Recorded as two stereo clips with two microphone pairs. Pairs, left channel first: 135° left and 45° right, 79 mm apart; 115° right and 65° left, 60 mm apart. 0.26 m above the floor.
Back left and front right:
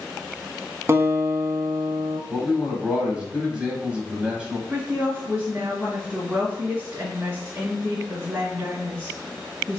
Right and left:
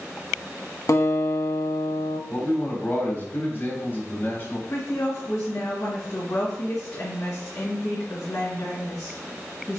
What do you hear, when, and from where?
0.9 s a guitar: 95° right, 0.5 m
2.3 s a man speaking: 110° right, 1.2 m
4.7 s a woman speaking: 110° right, 2 m